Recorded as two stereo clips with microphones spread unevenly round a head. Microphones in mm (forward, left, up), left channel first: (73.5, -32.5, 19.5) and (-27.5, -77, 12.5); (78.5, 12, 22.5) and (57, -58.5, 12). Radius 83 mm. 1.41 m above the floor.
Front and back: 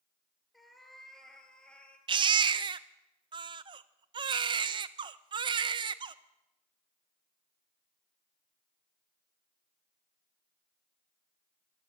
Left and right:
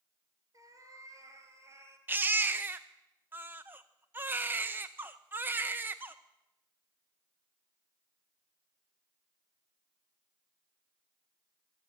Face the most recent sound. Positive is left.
turn(degrees=-175)